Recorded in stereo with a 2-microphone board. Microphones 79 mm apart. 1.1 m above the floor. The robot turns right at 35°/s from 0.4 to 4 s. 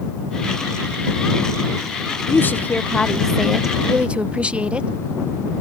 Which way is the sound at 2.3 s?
140° left.